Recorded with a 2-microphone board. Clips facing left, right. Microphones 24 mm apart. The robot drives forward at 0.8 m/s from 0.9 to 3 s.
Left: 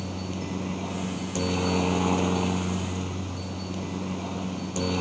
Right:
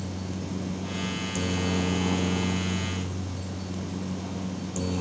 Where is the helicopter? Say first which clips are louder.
Left 2 dB; 35° left (ahead or behind).